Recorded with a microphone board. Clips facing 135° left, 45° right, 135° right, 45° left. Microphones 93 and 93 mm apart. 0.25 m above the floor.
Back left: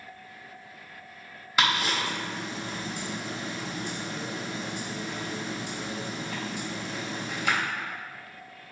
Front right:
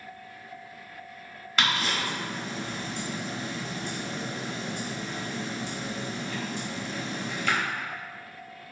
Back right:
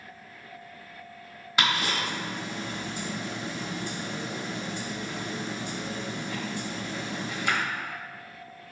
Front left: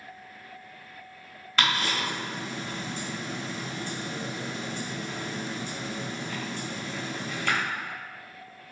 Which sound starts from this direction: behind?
Ticking, at 1.6 s.